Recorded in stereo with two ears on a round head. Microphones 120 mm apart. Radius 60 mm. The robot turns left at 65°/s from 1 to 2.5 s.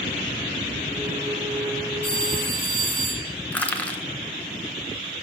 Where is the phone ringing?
15° left, 4 m; by 3.3 s 15° right, 4 m.